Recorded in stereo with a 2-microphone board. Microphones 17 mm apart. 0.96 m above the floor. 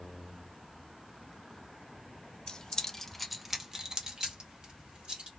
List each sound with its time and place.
2.5 s keys jangling: 45° left (ahead or behind), 0.6 m; by 5.3 s 65° right (ahead or behind), 1.5 m